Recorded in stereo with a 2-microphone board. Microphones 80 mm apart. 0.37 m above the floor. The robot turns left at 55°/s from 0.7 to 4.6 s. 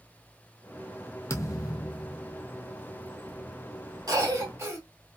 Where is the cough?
55° right (ahead or behind), 1.7 m; by 4.8 s 35° right (ahead or behind), 1.7 m.